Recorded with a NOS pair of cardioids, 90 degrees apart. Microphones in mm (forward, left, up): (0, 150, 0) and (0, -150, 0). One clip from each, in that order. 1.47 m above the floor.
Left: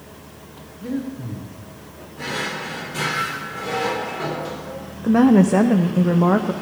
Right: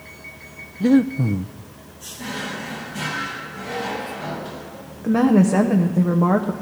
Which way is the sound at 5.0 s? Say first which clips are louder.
Left 2 dB; 5° left.